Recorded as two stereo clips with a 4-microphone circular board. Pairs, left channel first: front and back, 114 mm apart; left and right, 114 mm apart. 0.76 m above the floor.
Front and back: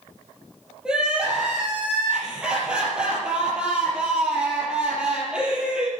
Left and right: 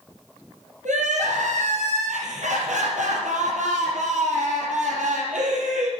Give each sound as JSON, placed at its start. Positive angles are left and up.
{"t": 0.8, "sound": "crying", "azimuth_deg": -95, "distance_m": 4.0}